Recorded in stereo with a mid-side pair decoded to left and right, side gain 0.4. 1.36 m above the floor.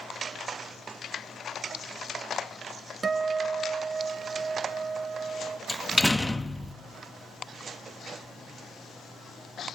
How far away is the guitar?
About 1.3 m.